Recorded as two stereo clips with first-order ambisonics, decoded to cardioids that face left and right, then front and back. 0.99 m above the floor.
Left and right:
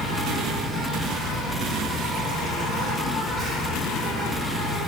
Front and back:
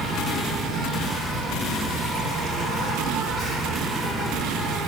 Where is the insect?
175° right, 1.4 m.